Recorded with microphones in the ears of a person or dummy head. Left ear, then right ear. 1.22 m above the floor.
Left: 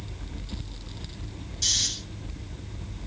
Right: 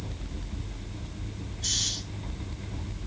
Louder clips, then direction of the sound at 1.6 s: Left 4 dB; 80° left.